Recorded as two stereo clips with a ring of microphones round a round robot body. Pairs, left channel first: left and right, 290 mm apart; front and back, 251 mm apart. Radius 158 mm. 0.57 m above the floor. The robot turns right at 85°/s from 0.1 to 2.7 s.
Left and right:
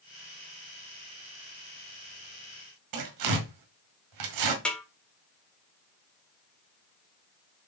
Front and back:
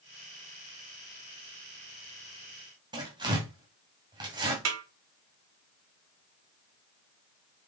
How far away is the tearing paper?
About 1.7 m.